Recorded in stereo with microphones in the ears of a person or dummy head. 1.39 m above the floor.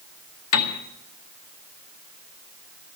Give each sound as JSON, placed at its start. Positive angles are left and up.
{"t": 0.5, "sound": "a piano", "side_deg": 70, "distance_m": 1.2}